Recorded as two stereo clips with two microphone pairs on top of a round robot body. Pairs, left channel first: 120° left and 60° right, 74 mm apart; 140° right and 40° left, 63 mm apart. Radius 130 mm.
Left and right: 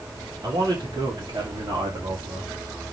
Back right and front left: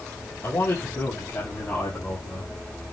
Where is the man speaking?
100° right, 3.5 m; by 2.5 s 80° right, 2 m.